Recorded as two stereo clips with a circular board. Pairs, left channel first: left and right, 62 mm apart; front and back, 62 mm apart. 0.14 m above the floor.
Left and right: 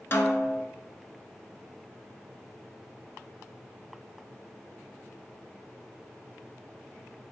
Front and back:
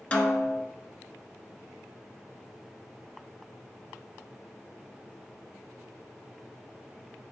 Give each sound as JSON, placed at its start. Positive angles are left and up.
{"t": 0.1, "sound": "a snare drum", "azimuth_deg": 65, "distance_m": 0.5}